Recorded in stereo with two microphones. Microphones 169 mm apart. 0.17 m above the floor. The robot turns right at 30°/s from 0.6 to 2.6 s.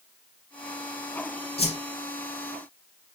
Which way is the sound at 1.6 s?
35° left (ahead or behind).